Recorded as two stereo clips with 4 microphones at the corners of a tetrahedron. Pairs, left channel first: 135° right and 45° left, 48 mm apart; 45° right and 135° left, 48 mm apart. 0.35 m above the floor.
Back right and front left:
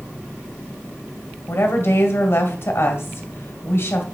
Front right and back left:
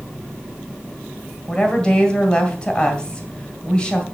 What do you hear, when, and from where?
1.5 s a woman speaking: 115° right, 2.5 m